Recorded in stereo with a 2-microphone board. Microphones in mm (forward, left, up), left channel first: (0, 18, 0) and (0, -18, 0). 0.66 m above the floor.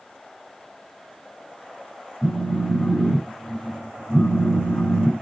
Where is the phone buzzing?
70° left (ahead or behind), 2 m.